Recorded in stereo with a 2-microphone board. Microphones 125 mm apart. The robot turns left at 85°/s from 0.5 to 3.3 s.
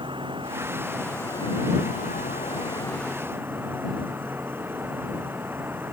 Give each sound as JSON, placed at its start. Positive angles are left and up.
{"t": 0.0, "sound": "an insect", "azimuth_deg": -140}